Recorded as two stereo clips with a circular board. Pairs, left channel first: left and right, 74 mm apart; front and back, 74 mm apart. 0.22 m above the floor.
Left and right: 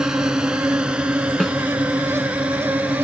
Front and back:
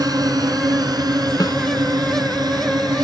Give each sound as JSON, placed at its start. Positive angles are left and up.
{"t": 0.0, "sound": "a drone", "azimuth_deg": -170}
{"t": 1.4, "sound": "a snare drum", "azimuth_deg": 10}